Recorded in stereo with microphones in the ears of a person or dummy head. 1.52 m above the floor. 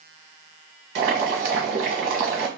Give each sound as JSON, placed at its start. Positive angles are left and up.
{"t": 0.9, "sound": "boiling", "side_deg": -60, "distance_m": 1.2}